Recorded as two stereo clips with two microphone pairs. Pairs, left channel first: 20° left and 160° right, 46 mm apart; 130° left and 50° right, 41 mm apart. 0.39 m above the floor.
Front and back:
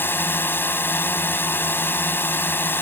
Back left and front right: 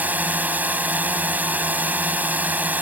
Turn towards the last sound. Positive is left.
turn(degrees=-10)